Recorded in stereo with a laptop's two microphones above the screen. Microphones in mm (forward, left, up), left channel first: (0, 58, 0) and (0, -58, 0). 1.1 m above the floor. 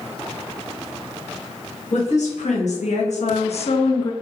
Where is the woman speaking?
80° left, 1.4 m; by 4.1 s 30° left (ahead or behind), 0.5 m.